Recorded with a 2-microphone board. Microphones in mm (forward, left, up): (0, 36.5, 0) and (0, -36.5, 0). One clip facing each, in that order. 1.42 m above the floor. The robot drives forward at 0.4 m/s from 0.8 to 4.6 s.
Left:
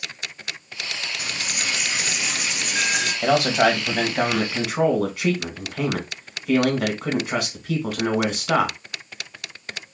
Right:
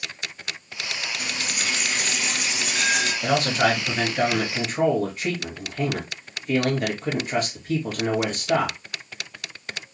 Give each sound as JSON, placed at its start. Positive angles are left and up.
{"t": 1.2, "sound": "a dropped coin", "side_deg": 10, "distance_m": 1.4}
{"t": 3.2, "sound": "a man speaking", "side_deg": 80, "distance_m": 1.9}